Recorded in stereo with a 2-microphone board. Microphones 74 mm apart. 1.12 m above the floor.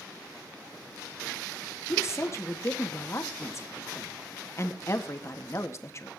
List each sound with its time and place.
1.9 s a woman speaking: 40° left (ahead or behind), 1.9 m